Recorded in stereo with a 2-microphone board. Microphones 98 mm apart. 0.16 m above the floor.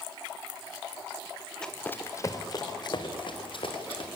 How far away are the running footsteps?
About 1.7 m.